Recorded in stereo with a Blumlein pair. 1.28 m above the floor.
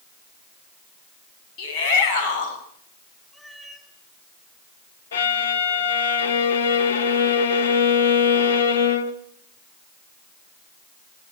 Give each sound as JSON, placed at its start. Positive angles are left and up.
{"t": 1.6, "sound": "a shout", "azimuth_deg": 40, "distance_m": 8.5}
{"t": 3.3, "sound": "a cat meowing", "azimuth_deg": 0, "distance_m": 4.0}
{"t": 5.1, "sound": "a violin", "azimuth_deg": 60, "distance_m": 1.7}